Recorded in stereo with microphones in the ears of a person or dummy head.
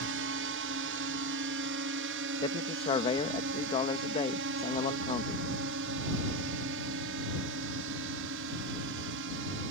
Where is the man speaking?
25° left (ahead or behind).